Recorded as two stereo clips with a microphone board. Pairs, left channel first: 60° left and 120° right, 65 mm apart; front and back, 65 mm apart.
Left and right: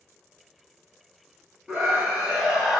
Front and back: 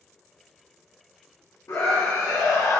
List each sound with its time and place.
1.7 s a scream: 40° right, 3 m; by 2.8 s 35° right, 2.5 m